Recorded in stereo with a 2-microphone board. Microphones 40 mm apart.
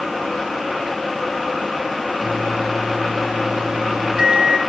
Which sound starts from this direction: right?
A microwave, at 2.2 s.